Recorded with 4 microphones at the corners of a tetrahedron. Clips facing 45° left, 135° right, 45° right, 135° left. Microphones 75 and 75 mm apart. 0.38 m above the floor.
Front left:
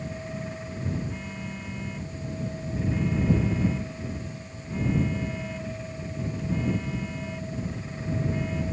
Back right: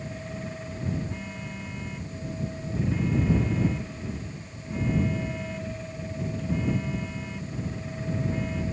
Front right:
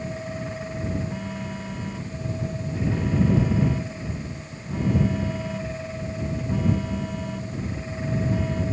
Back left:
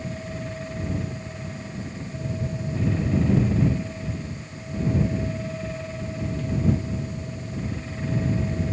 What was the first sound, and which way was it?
A phone buzzing, 45° right.